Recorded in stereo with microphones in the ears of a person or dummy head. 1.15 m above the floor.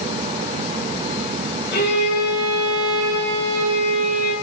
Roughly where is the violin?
Left.